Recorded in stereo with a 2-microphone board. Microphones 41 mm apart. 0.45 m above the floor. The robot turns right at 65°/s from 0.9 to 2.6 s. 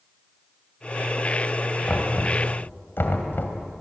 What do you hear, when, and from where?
1.9 s knocking: 30° left (ahead or behind), 2.5 m; by 3.6 s 65° left (ahead or behind), 2.5 m